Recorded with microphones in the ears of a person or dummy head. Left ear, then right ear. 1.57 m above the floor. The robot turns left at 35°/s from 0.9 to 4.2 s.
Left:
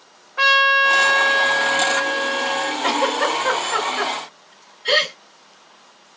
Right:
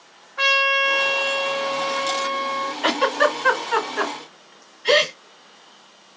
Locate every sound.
0.4 s a trumpet: 135° left, 0.7 m; by 2.7 s 70° left, 0.7 m
2.8 s a giggle: 50° right (ahead or behind), 2 m; by 5.1 s 25° right (ahead or behind), 2 m